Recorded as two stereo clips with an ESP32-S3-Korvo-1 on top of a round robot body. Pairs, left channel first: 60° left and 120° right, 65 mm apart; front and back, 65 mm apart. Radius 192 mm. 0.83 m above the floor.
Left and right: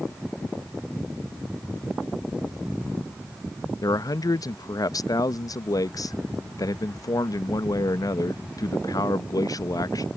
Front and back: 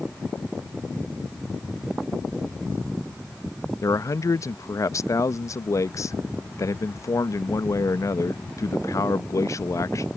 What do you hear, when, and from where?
3.8 s a man speaking: 40° left